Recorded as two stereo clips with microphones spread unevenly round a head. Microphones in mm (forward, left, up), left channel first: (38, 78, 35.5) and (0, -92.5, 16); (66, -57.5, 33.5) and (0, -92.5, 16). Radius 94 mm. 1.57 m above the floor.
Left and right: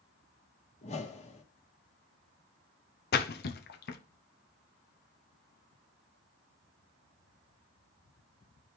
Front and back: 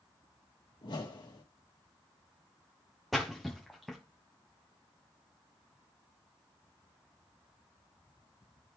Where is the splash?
120° left, 0.7 m.